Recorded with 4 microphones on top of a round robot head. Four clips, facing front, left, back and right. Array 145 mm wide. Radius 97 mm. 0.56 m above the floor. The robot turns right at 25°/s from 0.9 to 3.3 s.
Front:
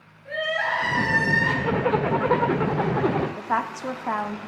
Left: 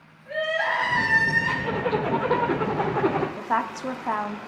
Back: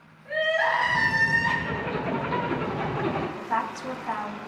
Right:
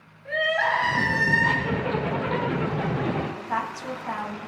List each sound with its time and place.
0.2 s crying: 75° right, 5 m; by 1.5 s 60° right, 5 m
1.6 s a zipper: 15° left, 1.2 m; by 3.3 s 55° left, 1.2 m
3.4 s a woman speaking: 40° left, 1.1 m